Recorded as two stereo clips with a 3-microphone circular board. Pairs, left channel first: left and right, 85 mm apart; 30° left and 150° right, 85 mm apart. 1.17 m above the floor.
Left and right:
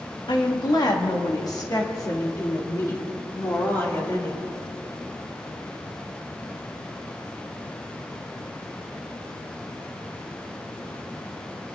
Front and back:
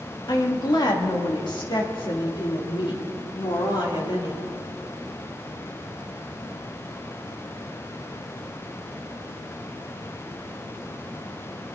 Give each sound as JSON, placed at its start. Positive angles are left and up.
{"t": 0.3, "sound": "a woman speaking", "azimuth_deg": 65, "distance_m": 2.5}